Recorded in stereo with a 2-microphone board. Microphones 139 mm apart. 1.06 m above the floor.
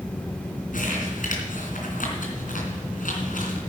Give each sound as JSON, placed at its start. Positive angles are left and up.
{"t": 0.7, "sound": "crumpling", "side_deg": 75, "distance_m": 3.0}